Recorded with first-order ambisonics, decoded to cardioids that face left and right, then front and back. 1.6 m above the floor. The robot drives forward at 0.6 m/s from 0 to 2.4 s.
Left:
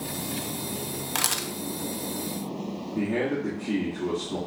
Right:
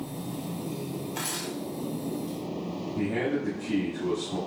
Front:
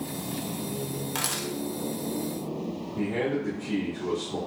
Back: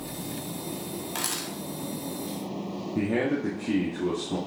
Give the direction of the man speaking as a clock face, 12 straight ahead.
6 o'clock.